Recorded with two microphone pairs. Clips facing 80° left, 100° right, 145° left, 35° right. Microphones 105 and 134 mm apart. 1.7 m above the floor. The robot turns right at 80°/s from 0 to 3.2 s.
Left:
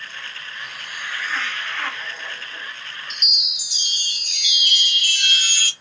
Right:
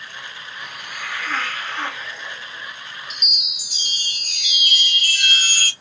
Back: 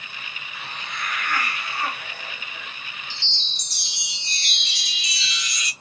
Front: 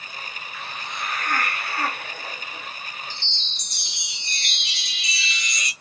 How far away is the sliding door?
No sliding door in this recording.